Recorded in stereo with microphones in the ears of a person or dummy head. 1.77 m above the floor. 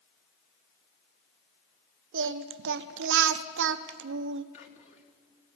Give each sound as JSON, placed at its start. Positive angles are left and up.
{"t": 2.1, "sound": "singing", "side_deg": -60, "distance_m": 0.6}
{"t": 4.5, "sound": "whispering", "side_deg": 45, "distance_m": 2.0}